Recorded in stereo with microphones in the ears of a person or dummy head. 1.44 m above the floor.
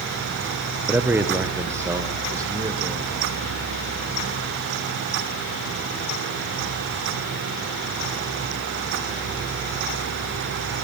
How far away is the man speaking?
About 1.0 m.